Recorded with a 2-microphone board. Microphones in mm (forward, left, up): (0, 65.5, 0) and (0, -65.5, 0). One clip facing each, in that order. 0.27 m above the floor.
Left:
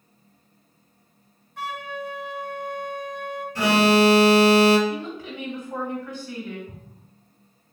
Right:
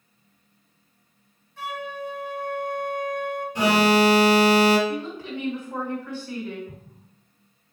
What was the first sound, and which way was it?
A flute, 65° left (ahead or behind).